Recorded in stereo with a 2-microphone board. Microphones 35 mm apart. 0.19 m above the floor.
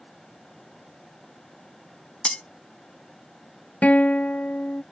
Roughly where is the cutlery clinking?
Left.